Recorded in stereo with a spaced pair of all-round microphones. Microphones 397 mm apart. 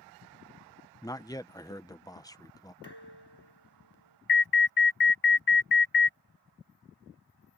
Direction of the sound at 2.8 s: 85° left.